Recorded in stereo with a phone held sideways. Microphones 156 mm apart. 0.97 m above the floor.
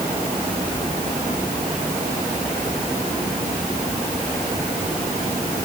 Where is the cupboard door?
I don't hear a cupboard door.